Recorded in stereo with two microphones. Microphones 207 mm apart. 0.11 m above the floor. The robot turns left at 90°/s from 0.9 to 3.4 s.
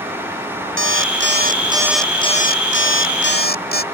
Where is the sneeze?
I don't hear a sneeze.